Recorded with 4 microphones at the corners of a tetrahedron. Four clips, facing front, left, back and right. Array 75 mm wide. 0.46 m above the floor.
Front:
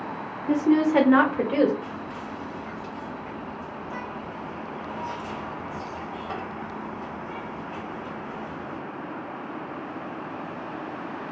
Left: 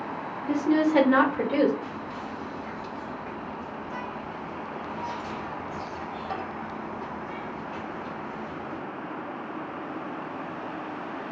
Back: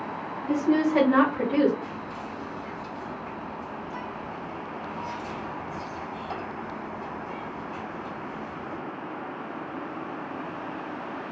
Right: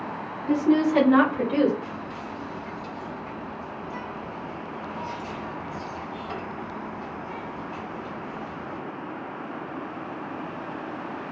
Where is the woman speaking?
5° right, 0.9 m; by 1.7 s 10° left, 1.6 m.